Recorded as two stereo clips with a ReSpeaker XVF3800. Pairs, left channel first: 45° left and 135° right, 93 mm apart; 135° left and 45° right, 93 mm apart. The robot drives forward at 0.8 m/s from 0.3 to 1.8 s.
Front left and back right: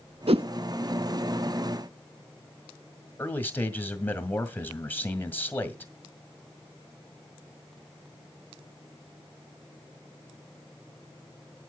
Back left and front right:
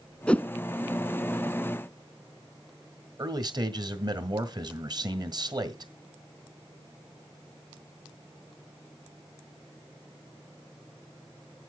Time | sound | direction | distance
0.3 | a whoosh | 145° right | 0.6 m
3.2 | a man speaking | 20° right | 1.7 m